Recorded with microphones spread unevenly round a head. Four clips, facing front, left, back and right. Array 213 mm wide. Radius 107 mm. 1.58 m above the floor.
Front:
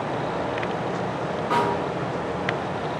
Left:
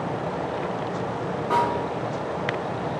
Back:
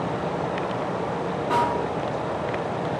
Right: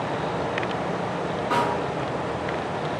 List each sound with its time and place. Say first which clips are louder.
1.5 s a snare drum: left 2 dB, even; 140° left, 1.8 m